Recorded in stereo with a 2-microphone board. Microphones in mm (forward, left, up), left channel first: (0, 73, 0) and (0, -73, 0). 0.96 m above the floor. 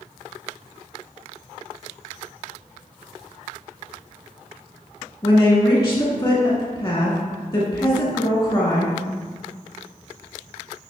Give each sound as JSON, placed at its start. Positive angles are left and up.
{"t": 5.2, "sound": "a woman speaking", "side_deg": 35, "distance_m": 1.4}